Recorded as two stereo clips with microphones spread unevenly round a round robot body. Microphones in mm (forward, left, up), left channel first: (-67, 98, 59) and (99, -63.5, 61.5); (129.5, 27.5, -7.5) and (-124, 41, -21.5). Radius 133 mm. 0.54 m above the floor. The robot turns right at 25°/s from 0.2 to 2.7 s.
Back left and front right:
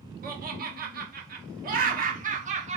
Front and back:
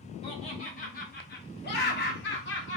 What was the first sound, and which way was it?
Laughter, 65° right.